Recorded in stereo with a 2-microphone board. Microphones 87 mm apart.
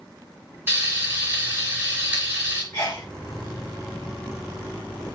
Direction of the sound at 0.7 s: 25° right (ahead or behind).